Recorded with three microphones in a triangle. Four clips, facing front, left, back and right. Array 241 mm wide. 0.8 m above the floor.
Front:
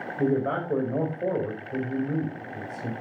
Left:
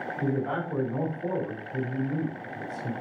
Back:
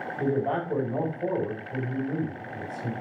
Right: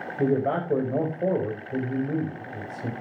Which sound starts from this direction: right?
A man speaking, at 0.2 s.